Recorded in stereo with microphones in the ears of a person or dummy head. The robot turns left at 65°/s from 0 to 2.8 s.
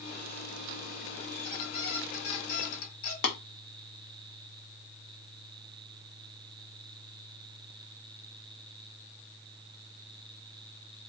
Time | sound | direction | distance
1.3 | a squeak | 165° left | 1.7 m
3.2 | tapping | 60° left (ahead or behind) | 1.1 m